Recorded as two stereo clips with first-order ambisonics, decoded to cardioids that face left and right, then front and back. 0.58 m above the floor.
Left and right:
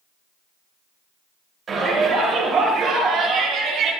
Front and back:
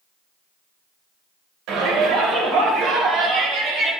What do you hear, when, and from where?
1.7 s a shout: 160° right, 3 m; by 3.9 s 140° right, 3.5 m